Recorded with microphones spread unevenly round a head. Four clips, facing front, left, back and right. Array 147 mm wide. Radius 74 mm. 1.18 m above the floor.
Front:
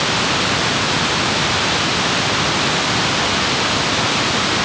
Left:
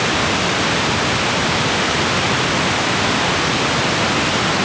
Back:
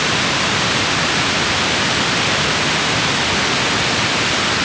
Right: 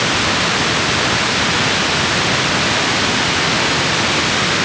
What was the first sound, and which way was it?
Only background noise.